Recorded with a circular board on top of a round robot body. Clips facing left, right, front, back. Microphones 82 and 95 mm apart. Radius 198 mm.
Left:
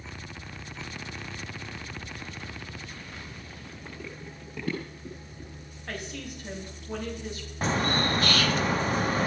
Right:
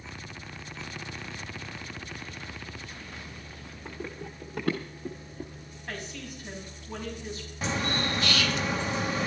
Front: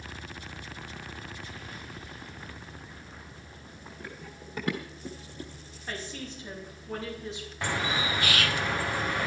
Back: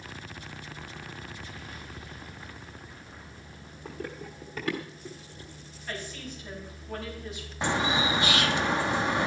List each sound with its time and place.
3.9 s running footsteps: 175° right, 0.6 m; by 5.8 s 40° right, 1.0 m
5.9 s a woman speaking: 65° left, 6 m
7.6 s a bird: 115° left, 1.2 m